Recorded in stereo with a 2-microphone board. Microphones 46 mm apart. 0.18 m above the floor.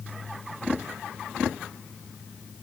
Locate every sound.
Only background noise.